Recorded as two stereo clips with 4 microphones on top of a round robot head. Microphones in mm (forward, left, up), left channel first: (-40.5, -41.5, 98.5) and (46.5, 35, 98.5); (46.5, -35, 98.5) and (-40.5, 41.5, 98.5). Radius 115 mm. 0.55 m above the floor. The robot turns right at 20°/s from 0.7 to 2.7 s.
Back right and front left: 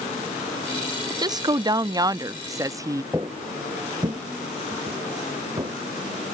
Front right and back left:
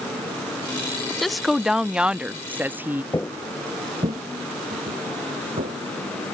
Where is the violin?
I don't hear a violin.